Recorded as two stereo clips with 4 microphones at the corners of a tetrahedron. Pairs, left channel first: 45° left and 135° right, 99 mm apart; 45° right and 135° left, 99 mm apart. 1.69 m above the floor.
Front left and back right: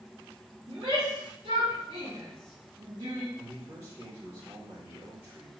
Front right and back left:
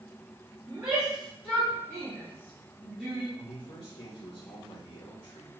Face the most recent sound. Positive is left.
turn(degrees=-70)